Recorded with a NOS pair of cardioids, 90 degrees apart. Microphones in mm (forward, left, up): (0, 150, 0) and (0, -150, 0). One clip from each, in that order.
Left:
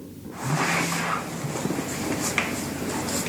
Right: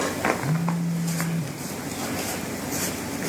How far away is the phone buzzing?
About 2 m.